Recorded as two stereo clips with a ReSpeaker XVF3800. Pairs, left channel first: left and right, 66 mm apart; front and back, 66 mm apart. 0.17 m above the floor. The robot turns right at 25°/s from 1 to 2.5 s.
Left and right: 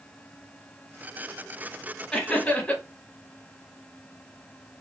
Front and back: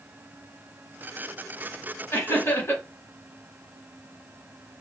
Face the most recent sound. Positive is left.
turn(degrees=25)